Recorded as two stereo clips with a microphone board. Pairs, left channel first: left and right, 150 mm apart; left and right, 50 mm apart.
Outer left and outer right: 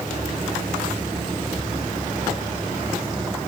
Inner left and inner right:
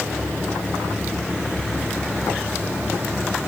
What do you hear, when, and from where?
Only background noise.